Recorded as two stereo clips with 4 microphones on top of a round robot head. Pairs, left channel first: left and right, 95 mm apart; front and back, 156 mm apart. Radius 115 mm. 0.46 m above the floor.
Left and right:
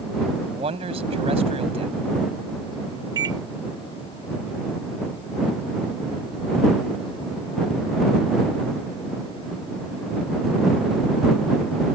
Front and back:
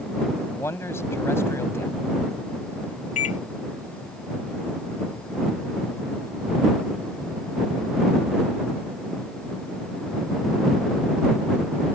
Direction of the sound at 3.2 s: 40° right.